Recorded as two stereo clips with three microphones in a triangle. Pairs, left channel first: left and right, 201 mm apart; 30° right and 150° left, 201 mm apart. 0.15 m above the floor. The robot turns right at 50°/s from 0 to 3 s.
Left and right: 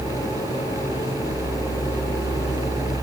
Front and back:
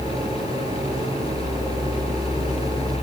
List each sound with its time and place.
Only background noise.